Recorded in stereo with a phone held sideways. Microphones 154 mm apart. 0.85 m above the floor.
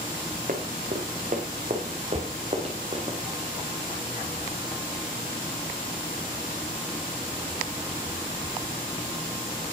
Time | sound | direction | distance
0.5 | running footsteps | 65° right (ahead or behind) | 3.5 m
2.1 | a cupboard door | 20° right (ahead or behind) | 0.8 m